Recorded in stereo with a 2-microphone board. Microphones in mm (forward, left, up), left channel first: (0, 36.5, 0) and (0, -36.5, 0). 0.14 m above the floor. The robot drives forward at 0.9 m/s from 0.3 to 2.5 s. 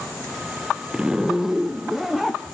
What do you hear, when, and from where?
0.9 s a zipper: 10° right (ahead or behind), 0.6 m; by 2.4 s 5° right (ahead or behind), 1.9 m